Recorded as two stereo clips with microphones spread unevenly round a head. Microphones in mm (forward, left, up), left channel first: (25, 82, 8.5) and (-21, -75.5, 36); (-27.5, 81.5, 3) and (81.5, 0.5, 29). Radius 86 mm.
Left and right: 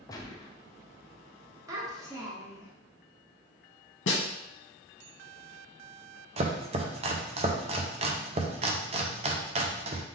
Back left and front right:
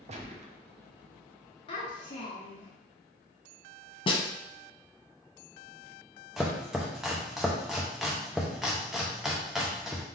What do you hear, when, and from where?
0.1 s a gunshot: straight ahead, 0.7 m
1.7 s a child speaking: 155° right, 1.0 m
4.1 s a snare drum: 90° left, 0.9 m
6.4 s chopping: 110° right, 0.5 m